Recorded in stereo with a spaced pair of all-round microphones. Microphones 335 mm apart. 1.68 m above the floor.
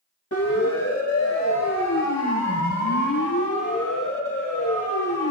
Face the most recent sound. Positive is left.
turn(degrees=70)  # may be behind; listen again after turning